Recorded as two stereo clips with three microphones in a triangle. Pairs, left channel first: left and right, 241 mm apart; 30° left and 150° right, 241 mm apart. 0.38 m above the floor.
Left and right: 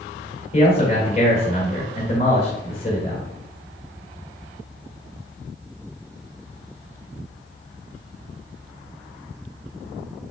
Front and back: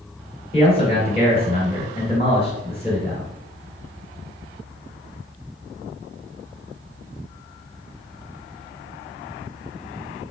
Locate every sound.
0.5 s a man speaking: 60° left, 1.5 m